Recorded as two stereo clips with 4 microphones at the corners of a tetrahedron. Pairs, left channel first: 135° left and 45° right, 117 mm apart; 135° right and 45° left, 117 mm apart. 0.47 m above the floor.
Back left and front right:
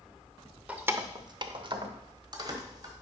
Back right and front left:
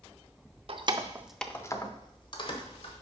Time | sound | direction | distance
0.7 | keys jangling | 30° left | 0.7 m